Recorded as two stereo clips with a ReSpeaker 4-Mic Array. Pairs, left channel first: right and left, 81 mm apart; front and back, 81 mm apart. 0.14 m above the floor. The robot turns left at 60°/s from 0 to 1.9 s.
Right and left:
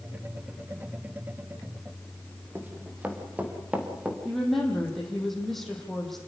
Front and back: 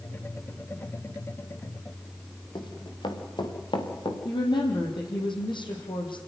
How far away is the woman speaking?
About 6 m.